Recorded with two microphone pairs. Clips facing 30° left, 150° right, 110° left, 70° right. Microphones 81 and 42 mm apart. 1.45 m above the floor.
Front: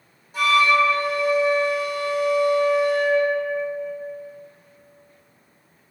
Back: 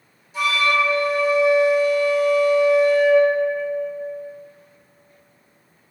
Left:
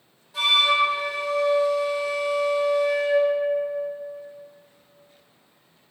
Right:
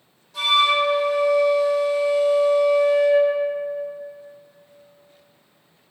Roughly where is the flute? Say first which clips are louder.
Front 2 dB, right 1 dB; ahead left.